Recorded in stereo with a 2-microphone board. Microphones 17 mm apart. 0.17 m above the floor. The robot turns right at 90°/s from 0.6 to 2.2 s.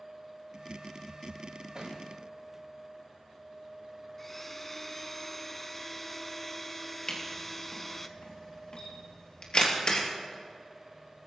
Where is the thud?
50° right (ahead or behind), 6 m; by 2.0 s 70° right (ahead or behind), 6 m.